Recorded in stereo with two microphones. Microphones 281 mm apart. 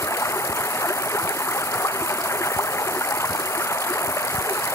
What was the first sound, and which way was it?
Running water, 10° left (ahead or behind).